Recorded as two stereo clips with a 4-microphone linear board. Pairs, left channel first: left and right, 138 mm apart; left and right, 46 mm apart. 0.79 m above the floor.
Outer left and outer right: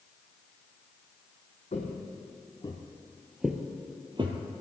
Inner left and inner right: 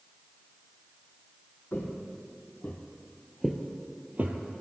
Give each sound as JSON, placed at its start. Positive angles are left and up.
{"t": 1.7, "sound": "footsteps", "side_deg": 60, "distance_m": 1.7}